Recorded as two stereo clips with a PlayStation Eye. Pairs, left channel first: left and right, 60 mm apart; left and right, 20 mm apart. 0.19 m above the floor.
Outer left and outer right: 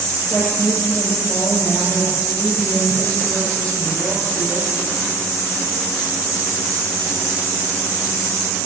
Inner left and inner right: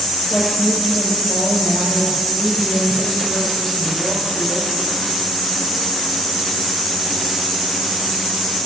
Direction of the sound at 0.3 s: 20° left (ahead or behind).